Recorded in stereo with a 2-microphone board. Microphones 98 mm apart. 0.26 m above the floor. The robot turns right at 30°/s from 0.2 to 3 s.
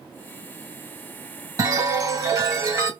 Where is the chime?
100° right, 1.4 m; by 2.9 s 60° right, 1.4 m.